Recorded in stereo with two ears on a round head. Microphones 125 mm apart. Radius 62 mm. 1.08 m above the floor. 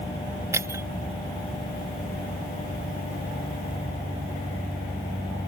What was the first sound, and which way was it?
Breaking glass, 20° right (ahead or behind).